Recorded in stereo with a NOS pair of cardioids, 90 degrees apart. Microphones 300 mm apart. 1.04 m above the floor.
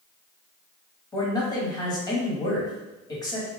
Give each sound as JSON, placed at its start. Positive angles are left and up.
{"t": 1.1, "sound": "a man speaking", "azimuth_deg": 15, "distance_m": 1.5}